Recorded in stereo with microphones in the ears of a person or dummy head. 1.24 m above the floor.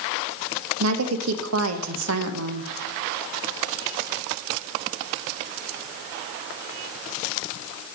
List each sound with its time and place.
0.8 s a woman speaking: 80° right, 1.1 m